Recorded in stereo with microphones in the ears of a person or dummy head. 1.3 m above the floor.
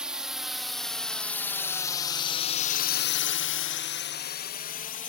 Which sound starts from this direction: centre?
A drone, at 0.0 s.